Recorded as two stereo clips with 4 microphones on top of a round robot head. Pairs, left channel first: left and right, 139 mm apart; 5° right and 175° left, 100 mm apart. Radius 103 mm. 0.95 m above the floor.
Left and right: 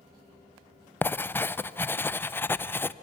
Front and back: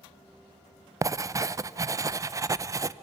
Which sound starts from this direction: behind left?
Writing, at 1.0 s.